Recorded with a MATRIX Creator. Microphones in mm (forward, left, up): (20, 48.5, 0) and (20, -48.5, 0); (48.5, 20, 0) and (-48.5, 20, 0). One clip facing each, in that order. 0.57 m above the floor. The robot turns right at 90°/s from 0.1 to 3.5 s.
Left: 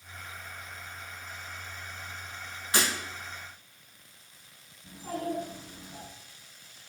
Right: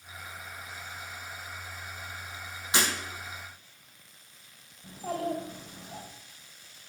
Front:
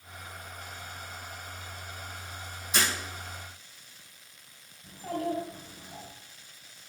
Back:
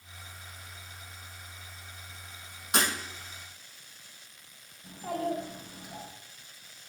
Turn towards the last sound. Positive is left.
turn(degrees=-100)